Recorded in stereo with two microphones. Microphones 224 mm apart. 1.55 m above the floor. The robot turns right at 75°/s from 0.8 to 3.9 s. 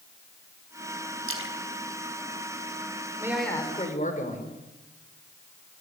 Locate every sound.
1.3 s a splash: 75° right (ahead or behind), 4.5 m; by 1.6 s 70° right (ahead or behind), 4.5 m
3.2 s a man speaking: 15° right, 6 m; by 4.5 s 35° left, 6 m